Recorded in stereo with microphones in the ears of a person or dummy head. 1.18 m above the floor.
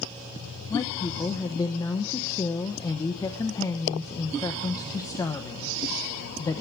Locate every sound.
0.7 s a woman speaking: 15° left (ahead or behind), 0.8 m